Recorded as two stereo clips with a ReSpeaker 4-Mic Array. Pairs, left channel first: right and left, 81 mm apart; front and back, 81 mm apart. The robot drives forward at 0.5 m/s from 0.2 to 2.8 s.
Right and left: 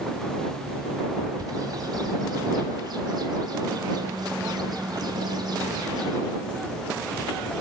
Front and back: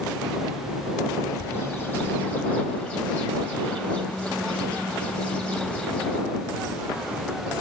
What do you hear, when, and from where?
1.4 s a bird: 55° left, 2.5 m; by 6.2 s 75° left, 2 m